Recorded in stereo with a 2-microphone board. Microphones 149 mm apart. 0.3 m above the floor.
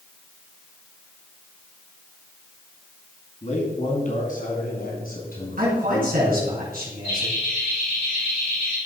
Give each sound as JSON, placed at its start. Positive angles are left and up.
{"t": 3.4, "sound": "a man speaking", "side_deg": 50, "distance_m": 3.0}
{"t": 5.6, "sound": "a man speaking", "side_deg": -65, "distance_m": 3.5}
{"t": 7.0, "sound": "laughter", "side_deg": 70, "distance_m": 3.5}